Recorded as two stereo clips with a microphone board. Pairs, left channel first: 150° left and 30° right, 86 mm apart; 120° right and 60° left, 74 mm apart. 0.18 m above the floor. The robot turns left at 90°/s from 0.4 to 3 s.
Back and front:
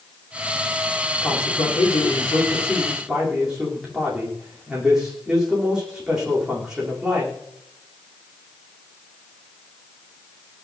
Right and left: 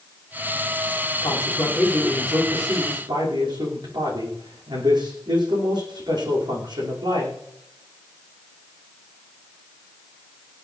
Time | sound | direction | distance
1.2 | a man speaking | 145° right | 9.5 m